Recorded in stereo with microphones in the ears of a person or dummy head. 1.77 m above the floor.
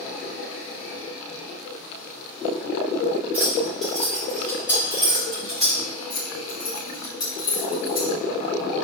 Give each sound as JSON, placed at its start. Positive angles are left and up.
{"t": 3.3, "sound": "keys jangling", "side_deg": -10, "distance_m": 1.3}
{"t": 6.1, "sound": "keys jangling", "side_deg": 30, "distance_m": 1.4}